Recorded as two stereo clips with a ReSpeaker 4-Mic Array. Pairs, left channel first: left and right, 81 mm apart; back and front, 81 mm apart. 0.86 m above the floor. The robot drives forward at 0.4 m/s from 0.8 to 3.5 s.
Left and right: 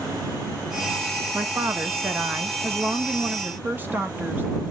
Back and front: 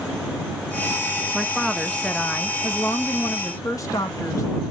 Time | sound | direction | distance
1.3 | a woman speaking | 75° right | 0.9 m